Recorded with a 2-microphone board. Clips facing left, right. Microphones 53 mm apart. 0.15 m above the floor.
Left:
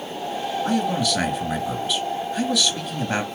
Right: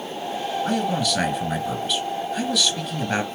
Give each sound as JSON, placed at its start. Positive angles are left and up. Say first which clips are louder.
{"t": 0.7, "sound": "a man speaking", "louder": "left 2 dB", "side_deg": 5, "distance_m": 2.0}